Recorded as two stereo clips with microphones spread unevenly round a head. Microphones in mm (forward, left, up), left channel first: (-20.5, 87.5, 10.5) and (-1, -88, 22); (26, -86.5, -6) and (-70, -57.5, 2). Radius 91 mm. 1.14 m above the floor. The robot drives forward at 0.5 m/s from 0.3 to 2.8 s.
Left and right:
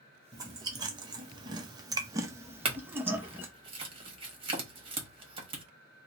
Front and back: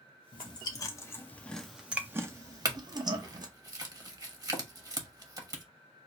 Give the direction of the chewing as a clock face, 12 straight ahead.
1 o'clock.